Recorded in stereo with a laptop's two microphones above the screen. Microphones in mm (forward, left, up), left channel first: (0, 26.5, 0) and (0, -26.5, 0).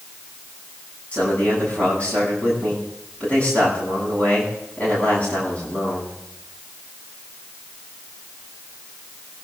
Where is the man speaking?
25° left (ahead or behind), 9.5 m.